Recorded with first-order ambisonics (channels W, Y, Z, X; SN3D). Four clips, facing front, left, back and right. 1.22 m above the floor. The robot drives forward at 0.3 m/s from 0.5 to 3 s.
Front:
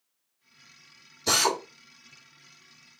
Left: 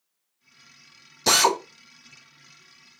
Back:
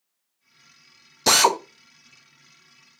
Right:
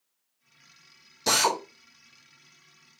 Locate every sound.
1.3 s a drill: 160° left, 0.8 m; by 1.6 s 165° left, 0.9 m